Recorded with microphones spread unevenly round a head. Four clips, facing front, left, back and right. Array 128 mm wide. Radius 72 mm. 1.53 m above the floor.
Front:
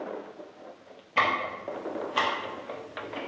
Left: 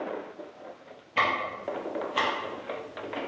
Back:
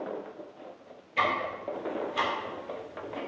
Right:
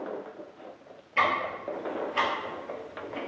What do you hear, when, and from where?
1.2 s ticking: 5° left, 0.8 m